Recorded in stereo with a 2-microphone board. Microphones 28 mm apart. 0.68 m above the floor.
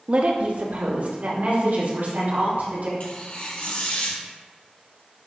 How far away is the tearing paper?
About 2.5 m.